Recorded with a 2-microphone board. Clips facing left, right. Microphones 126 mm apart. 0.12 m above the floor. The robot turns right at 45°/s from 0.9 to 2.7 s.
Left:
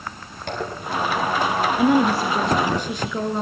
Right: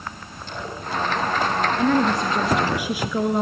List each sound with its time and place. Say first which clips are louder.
0.5 s a zipper: left 3 dB; 85° left, 6.5 m; by 2.8 s 15° left (ahead or behind), 6.5 m
1.8 s a woman speaking: left 3 dB; 155° left, 1.7 m; by 3.4 s 165° right, 1.7 m